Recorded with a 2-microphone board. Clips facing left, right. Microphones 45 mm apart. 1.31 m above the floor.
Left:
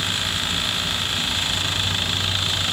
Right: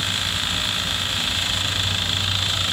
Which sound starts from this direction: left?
An insect, at 0.0 s.